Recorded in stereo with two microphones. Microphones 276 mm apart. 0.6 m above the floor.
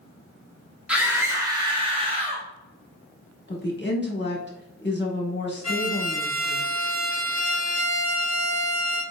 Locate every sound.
0.9 s a scream: 5° right (ahead or behind), 0.8 m; by 2.5 s 20° right (ahead or behind), 0.9 m
3.5 s a woman speaking: 40° left (ahead or behind), 1.1 m
5.6 s a violin: 55° right (ahead or behind), 1.6 m